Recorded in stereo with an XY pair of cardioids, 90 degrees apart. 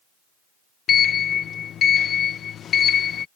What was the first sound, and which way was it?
A sliding door, 70° left.